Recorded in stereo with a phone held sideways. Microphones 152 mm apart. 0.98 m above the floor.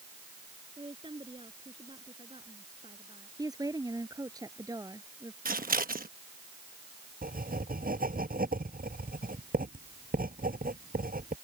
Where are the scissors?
70° right (ahead or behind).